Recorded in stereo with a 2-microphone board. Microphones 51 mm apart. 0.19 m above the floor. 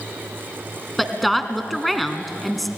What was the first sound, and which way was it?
A woman speaking, centre (ahead or behind).